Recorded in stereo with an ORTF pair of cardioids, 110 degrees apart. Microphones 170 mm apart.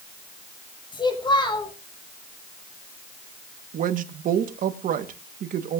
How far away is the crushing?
No crushing in this recording.